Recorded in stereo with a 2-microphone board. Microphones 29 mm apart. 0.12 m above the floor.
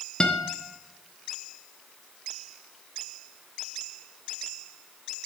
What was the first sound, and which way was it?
A guitar, 30° left (ahead or behind).